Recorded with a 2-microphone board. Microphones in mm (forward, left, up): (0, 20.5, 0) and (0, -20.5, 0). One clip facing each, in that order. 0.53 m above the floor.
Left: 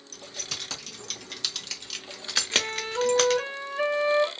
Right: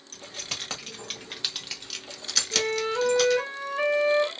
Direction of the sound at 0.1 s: 45° right (ahead or behind).